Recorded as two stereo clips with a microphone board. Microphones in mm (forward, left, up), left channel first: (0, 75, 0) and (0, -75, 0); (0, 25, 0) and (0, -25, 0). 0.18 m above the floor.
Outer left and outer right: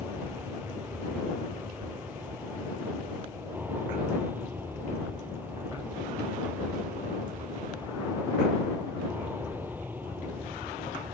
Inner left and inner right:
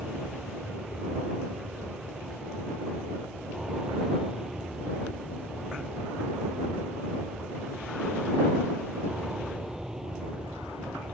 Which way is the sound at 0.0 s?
10° right (ahead or behind).